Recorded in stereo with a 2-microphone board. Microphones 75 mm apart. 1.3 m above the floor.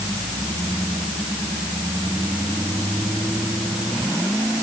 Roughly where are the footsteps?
I don't hear footsteps.